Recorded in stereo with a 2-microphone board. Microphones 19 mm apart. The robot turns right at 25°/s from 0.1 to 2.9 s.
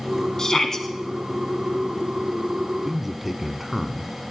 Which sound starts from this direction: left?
A shout, at 0.4 s.